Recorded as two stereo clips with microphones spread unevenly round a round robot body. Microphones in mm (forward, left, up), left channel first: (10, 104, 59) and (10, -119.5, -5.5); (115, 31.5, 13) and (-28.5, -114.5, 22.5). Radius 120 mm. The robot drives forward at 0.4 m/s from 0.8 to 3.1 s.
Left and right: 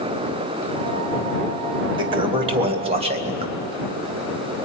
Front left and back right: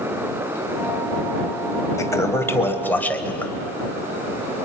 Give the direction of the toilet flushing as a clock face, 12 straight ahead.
1 o'clock.